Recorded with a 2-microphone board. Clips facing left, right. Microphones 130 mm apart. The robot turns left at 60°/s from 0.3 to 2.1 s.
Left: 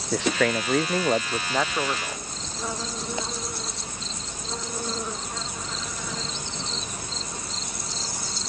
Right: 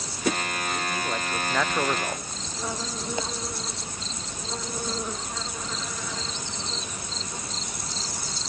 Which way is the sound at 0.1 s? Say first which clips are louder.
Left 6 dB; 90° left.